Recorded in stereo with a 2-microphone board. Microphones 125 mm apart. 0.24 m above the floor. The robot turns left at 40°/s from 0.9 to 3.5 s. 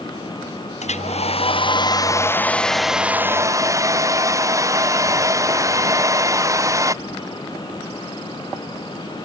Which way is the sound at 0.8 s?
75° left.